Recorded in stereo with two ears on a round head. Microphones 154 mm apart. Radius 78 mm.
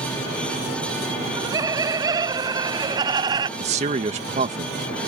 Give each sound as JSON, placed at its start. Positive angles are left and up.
{"t": 1.2, "sound": "laughter", "side_deg": -20}
{"t": 3.6, "sound": "a man speaking", "side_deg": -40}